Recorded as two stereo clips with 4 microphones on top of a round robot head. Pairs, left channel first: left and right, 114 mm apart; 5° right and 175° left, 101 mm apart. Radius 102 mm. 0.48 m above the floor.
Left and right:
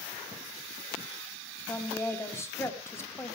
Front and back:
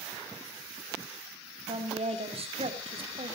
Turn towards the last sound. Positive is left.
turn(degrees=160)